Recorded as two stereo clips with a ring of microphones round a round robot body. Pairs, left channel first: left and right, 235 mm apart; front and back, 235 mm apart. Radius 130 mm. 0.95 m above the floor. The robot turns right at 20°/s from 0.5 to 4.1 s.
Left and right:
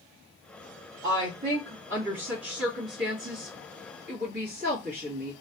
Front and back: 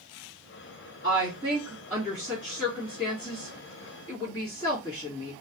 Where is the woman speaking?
105° right, 1.8 m; by 5.3 s 45° right, 1.8 m.